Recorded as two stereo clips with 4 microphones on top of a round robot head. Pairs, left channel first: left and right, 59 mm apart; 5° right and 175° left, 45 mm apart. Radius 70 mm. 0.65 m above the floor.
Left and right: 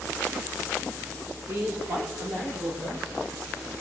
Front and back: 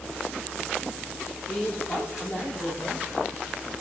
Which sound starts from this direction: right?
A man speaking, at 1.5 s.